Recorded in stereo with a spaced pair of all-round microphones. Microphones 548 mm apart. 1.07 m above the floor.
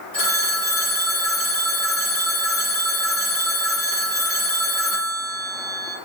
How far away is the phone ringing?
About 2 m.